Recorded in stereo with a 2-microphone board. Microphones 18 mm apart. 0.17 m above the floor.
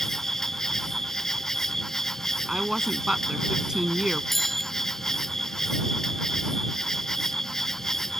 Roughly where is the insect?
Left.